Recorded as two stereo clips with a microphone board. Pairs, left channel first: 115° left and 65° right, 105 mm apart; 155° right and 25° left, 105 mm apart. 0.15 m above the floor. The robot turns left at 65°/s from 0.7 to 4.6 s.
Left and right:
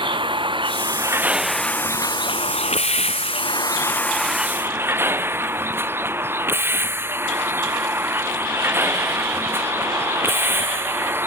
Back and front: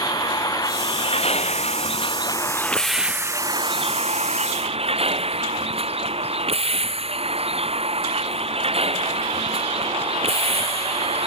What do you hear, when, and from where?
0.0 s a vehicle: 105° right; by 11.3 s straight ahead